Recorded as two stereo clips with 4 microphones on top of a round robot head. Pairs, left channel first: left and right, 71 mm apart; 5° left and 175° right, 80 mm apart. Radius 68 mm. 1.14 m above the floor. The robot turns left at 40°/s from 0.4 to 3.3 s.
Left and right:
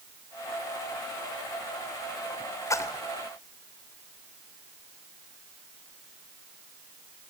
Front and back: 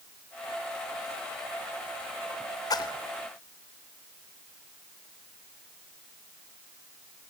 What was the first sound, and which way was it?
A splash, 45° left.